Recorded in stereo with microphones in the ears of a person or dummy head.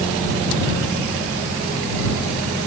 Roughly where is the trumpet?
I don't hear a trumpet.